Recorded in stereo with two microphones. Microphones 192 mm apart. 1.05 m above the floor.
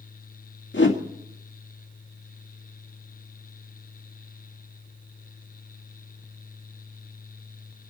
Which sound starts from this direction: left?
A whoosh, at 0.7 s.